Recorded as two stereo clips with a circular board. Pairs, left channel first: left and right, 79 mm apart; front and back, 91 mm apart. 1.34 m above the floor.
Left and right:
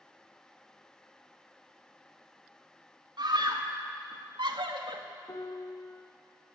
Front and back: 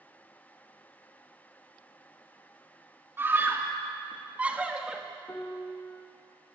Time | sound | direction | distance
3.2 | a scream | 115° right | 2.5 m
5.3 | a piano | 60° left | 1.9 m